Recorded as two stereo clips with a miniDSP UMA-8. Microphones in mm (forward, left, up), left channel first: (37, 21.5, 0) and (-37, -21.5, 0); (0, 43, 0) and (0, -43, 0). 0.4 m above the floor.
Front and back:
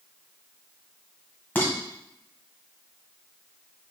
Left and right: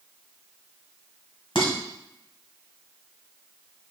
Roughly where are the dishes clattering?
Left.